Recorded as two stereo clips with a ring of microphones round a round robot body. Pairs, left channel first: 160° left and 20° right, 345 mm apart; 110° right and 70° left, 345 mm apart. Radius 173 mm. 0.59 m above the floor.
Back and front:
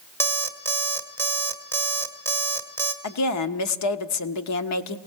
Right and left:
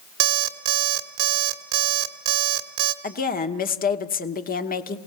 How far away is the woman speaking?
About 1.1 m.